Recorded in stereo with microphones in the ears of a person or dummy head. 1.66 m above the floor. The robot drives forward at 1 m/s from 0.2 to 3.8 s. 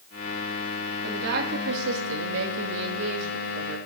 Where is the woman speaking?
55° right (ahead or behind), 2.5 m; by 3.8 s 50° right (ahead or behind), 2.5 m.